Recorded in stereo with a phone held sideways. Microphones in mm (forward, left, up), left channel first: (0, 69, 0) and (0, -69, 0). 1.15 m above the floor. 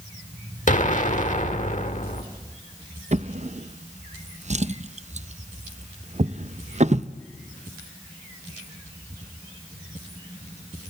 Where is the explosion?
65° left (ahead or behind), 1.4 m.